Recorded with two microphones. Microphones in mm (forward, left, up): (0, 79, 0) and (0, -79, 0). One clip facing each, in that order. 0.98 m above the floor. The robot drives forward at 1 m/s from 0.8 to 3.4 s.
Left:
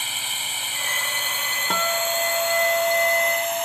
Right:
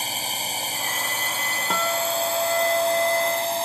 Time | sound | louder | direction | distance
0.0 | a drone | right 5 dB | 35° right (ahead or behind) | ?
1.7 | a guitar | even | centre (ahead or behind) | ?